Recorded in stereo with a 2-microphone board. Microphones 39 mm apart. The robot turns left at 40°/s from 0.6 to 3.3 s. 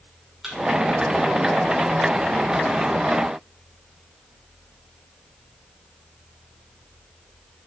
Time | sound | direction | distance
0.4 | a thud | 5° right (ahead or behind) | 5.5 m